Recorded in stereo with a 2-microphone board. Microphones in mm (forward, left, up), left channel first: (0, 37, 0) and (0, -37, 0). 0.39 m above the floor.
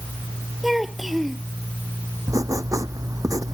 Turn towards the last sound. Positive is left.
turn(degrees=-50)  # may be behind; listen again after turning